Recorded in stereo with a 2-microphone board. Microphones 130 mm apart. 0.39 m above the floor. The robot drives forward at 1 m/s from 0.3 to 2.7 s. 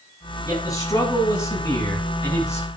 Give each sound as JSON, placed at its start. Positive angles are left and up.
{"t": 0.5, "sound": "a man speaking", "side_deg": 25, "distance_m": 8.0}